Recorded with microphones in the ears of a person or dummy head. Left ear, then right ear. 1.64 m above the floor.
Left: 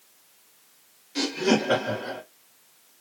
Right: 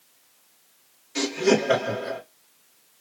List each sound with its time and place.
1.1 s laughter: 20° right (ahead or behind), 2 m